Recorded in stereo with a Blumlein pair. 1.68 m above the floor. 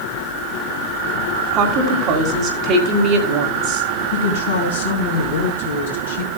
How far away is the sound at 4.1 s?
About 3 m.